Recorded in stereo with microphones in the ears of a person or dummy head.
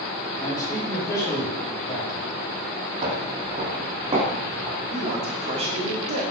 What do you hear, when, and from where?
0.4 s a man speaking: 25° left (ahead or behind), 5 m
3.0 s footsteps: 40° right (ahead or behind), 2.5 m; by 4.8 s 30° right (ahead or behind), 4.5 m
4.9 s a man speaking: 35° right (ahead or behind), 3 m